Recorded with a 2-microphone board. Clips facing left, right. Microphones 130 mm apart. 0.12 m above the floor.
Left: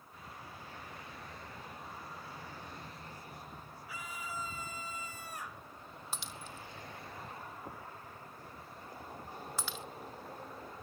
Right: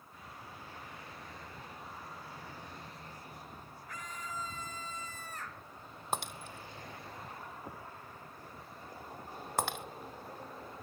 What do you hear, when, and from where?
3.9 s a scream: 10° left (ahead or behind); by 5.7 s 15° left (ahead or behind)
6.1 s breaking glass: 65° right (ahead or behind)